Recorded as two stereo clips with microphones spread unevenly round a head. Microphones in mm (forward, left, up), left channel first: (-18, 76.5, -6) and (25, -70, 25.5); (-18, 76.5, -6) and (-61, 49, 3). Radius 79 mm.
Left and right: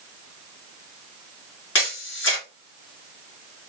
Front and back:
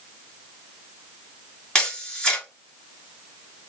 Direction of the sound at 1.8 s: 110° left.